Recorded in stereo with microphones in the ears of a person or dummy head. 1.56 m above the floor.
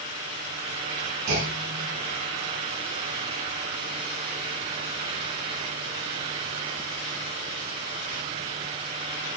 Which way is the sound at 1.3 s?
65° right (ahead or behind).